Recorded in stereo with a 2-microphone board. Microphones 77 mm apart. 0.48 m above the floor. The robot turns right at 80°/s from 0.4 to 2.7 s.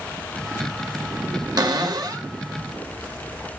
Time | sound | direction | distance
1.6 | a cupboard door | 110° right | 1.2 m